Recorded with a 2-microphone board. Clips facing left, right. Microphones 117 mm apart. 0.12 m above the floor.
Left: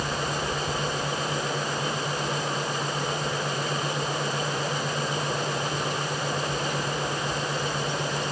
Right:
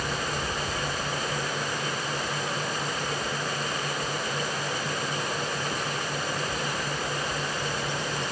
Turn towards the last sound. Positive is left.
No sound to turn to.